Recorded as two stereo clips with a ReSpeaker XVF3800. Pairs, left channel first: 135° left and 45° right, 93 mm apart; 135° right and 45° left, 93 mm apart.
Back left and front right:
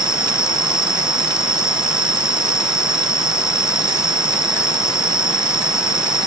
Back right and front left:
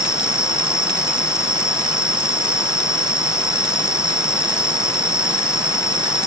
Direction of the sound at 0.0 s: 80° right.